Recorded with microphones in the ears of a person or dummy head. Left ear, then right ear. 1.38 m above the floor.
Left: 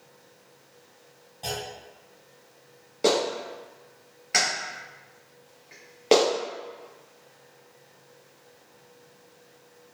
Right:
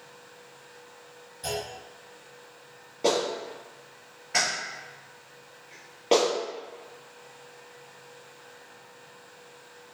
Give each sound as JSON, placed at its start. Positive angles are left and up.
{"t": 1.4, "sound": "a clunk", "side_deg": 30, "distance_m": 1.4}
{"t": 3.0, "sound": "a clap", "side_deg": 25, "distance_m": 1.0}